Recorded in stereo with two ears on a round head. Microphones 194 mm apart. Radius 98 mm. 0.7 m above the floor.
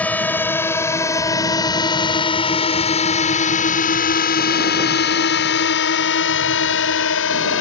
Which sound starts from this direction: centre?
A drone, at 0.0 s.